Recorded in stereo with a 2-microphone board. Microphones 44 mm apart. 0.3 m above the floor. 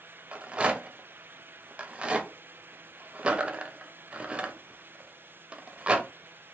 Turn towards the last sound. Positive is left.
turn(degrees=-25)  # may be behind; listen again after turning